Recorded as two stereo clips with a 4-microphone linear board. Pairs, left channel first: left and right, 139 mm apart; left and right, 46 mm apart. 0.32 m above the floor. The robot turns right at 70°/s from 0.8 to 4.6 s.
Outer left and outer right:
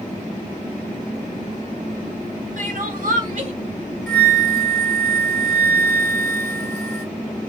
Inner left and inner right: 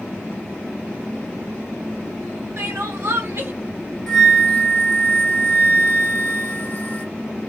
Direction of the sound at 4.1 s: Straight ahead.